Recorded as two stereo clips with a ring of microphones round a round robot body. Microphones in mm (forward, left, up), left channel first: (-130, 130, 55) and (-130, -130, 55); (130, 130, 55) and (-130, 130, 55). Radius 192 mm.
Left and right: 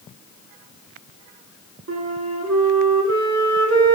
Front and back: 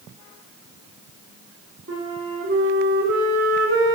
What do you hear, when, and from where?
1.9 s a flute: 125° right, 1.1 m